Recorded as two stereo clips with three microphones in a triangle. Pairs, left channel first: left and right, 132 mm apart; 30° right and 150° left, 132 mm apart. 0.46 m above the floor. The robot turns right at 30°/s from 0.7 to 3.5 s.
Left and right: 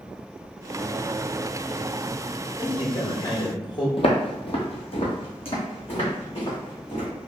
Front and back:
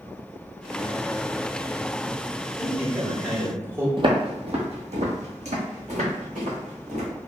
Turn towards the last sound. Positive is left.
turn(degrees=135)